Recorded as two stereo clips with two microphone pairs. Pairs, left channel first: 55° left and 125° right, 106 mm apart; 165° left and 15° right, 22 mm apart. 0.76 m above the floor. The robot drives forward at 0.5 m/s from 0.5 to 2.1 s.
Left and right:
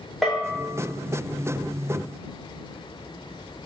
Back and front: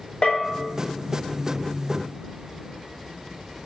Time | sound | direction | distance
0.2 | a bell | 150° left | 0.9 m